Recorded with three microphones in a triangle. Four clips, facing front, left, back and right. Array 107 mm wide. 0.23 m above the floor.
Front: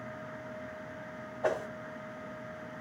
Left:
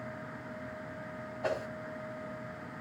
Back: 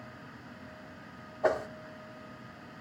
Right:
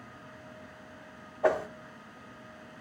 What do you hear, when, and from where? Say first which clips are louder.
1.4 s a whoosh: right 8 dB, back 3 dB; 105° right, 0.9 m